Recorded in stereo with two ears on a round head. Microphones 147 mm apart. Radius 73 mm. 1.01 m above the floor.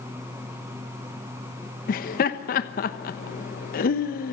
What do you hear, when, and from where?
1.9 s laughter: 55° left (ahead or behind), 1.1 m